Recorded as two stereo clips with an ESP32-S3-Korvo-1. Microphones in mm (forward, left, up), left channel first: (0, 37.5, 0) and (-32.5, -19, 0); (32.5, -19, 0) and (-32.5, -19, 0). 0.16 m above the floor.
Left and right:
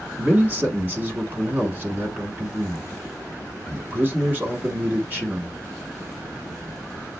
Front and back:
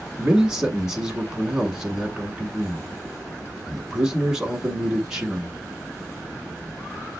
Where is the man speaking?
110° right, 1.2 m.